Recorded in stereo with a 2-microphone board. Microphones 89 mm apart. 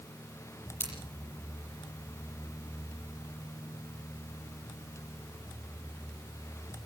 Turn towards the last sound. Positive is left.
turn(degrees=25)  # may be behind; listen again after turning